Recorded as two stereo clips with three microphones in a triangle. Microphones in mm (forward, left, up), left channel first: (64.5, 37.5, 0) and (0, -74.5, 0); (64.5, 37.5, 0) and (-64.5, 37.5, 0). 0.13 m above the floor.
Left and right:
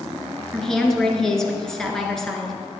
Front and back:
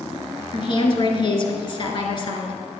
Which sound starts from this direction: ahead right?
A woman speaking, at 0.5 s.